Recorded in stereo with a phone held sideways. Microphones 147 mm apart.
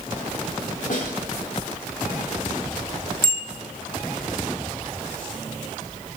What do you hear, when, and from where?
0.9 s a snare drum: 65° left (ahead or behind), 7 m
3.2 s a bicycle bell: 85° left, 3 m